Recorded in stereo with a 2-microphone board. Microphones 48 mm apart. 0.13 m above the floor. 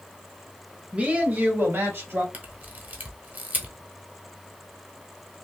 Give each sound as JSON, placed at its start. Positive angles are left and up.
{"t": 0.9, "sound": "a woman speaking", "side_deg": -20, "distance_m": 1.2}
{"t": 2.3, "sound": "a camera shutter", "side_deg": -35, "distance_m": 1.0}